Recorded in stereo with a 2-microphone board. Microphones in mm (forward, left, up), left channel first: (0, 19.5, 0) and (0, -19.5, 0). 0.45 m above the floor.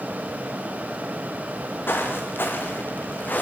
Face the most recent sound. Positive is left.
turn(degrees=50)  # may be behind; listen again after turning